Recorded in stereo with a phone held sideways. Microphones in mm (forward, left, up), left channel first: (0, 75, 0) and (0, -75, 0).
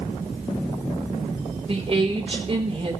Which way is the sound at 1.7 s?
40° right (ahead or behind).